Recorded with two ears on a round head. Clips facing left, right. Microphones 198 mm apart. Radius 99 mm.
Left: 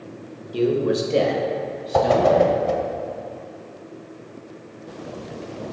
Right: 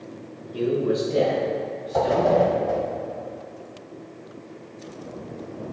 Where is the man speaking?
50° left (ahead or behind), 1.2 m; by 2.6 s 75° left (ahead or behind), 3 m.